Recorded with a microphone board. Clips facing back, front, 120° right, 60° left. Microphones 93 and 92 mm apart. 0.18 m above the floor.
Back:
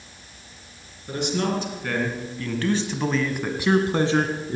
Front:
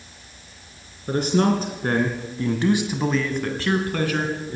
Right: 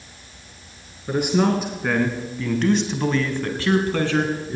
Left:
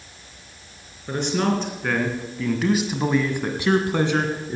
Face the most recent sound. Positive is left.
turn(degrees=130)